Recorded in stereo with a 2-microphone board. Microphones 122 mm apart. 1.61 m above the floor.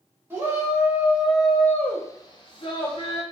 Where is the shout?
20° right (ahead or behind), 1.1 m; by 3.2 s 45° left (ahead or behind), 0.7 m.